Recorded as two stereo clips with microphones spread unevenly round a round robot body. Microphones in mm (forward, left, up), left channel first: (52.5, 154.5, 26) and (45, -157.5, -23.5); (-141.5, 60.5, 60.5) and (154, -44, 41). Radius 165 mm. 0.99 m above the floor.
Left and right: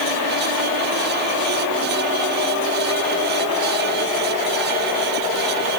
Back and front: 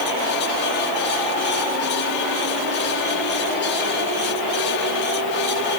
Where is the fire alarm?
No fire alarm in this recording.